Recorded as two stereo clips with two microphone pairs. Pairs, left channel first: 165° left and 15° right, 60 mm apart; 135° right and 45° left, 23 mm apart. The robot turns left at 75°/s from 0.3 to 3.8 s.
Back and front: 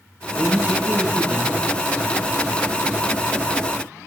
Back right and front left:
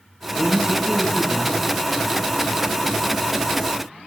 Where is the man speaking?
25° left, 0.8 m; by 1.7 s 75° right, 0.8 m.